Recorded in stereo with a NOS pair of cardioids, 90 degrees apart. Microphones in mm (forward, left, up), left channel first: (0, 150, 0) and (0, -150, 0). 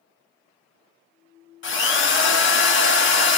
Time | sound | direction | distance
1.6 | a drill | 40° left | 1.0 m